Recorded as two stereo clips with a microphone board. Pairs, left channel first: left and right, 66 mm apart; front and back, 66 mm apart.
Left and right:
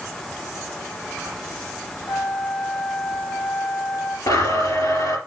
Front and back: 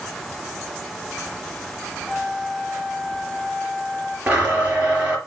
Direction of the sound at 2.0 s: 65° left.